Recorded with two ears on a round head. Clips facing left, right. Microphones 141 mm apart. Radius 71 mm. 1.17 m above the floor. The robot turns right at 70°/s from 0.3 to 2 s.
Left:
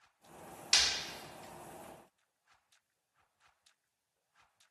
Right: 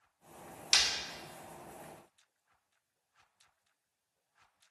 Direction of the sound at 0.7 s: 10° right (ahead or behind).